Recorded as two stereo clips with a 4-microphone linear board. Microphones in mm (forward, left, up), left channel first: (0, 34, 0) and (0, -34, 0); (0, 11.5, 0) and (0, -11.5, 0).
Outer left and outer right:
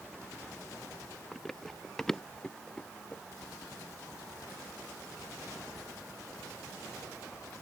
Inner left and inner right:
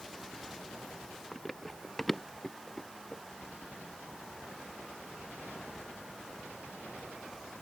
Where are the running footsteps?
5° left (ahead or behind); by 3.2 s 15° left (ahead or behind).